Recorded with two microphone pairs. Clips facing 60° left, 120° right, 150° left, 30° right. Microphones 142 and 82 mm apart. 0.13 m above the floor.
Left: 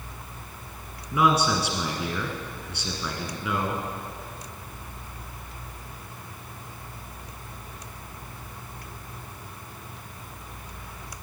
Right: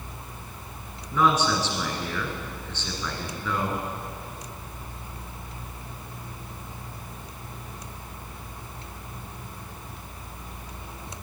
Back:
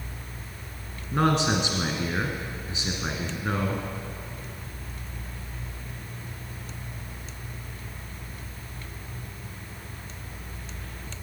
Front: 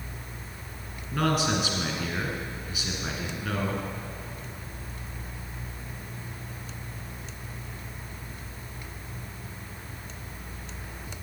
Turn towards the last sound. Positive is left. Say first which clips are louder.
# even, back 3 dB
turn(degrees=125)